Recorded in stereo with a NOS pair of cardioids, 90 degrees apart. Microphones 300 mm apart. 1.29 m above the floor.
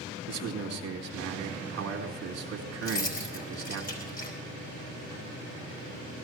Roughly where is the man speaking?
Ahead right.